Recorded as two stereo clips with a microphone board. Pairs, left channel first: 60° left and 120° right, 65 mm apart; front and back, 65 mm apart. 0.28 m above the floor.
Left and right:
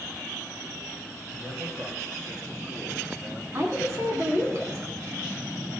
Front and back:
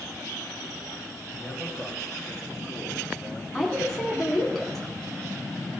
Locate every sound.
1.3 s a man speaking: 80° right, 4.5 m; by 3.4 s 115° right, 6 m
3.5 s a woman speaking: 85° right, 2.5 m